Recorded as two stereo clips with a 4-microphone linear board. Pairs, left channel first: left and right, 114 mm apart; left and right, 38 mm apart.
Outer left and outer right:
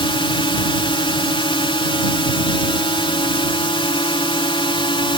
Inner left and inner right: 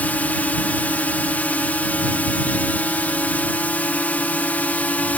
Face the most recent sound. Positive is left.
turn(degrees=50)  # may be behind; listen again after turning